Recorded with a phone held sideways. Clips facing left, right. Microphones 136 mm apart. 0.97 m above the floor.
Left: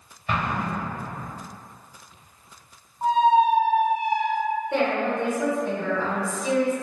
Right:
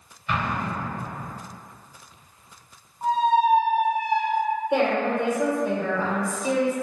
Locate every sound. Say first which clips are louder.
0.3 s an explosion: left 1 dB; 55° left (ahead or behind), 1.1 m
3.0 s a squeak: left 2 dB; 20° left (ahead or behind), 0.5 m
4.7 s a woman speaking: right 2 dB; 15° right (ahead or behind), 0.9 m